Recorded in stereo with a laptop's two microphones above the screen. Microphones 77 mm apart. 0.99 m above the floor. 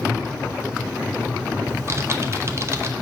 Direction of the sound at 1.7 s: 35° right (ahead or behind).